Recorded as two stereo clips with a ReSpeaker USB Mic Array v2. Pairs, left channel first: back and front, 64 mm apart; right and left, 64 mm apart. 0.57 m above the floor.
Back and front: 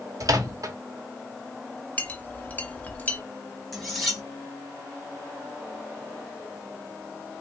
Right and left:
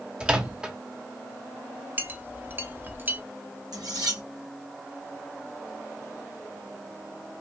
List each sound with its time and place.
0.2 s a microwave: 15° left, 1.0 m
2.0 s a clink: 125° left, 0.8 m
3.7 s cutlery clinking: 90° left, 2.5 m